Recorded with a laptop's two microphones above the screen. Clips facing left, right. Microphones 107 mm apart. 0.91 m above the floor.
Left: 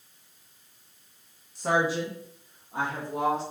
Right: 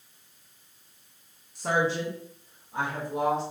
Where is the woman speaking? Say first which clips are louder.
Left 1 dB; 5° right (ahead or behind), 0.5 m; by 3.4 s 40° left (ahead or behind), 1.3 m.